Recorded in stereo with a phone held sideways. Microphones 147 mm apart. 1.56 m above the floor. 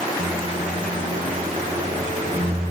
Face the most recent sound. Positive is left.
turn(degrees=-55)  # may be behind; listen again after turning